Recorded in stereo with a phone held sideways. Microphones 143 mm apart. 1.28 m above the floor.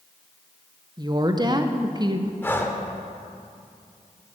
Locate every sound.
1.0 s a woman speaking: 30° right (ahead or behind), 0.8 m
2.4 s breathing: 15° left (ahead or behind), 0.9 m